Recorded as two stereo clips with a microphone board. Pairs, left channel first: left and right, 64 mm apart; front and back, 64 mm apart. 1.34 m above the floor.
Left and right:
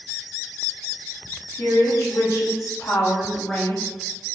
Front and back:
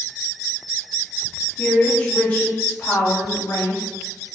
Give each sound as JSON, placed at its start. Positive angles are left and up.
{"t": 1.6, "sound": "a woman speaking", "azimuth_deg": 70, "distance_m": 1.3}